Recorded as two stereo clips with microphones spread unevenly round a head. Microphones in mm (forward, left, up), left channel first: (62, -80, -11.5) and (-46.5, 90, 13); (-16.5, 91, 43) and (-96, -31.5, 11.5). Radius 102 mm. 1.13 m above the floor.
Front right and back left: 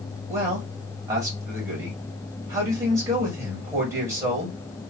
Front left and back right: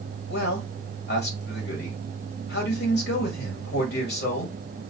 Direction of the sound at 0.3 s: 45° left.